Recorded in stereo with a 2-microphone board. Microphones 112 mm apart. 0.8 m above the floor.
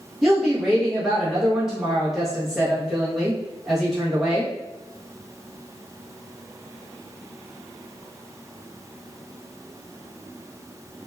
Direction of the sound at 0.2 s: 5° right (ahead or behind).